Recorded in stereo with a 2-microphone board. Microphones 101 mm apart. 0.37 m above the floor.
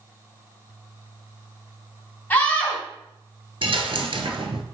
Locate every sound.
2.3 s a scream: 20° left (ahead or behind), 2.5 m
3.6 s a dropped coin: 60° right (ahead or behind), 0.8 m